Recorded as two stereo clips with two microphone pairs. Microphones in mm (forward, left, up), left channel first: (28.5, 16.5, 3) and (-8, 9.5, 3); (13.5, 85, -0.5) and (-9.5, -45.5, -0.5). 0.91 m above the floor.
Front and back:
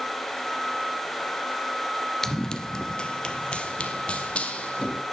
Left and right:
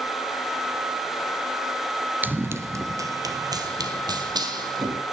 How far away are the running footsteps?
About 0.9 m.